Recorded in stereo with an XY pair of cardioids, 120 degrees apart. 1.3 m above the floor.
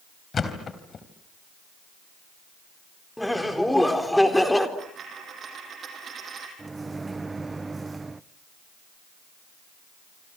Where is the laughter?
5° left, 4 m.